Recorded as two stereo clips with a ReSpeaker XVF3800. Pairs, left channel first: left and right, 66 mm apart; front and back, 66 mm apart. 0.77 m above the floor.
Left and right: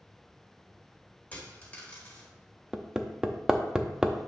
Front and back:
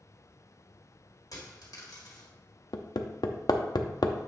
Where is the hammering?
10° right, 0.6 m.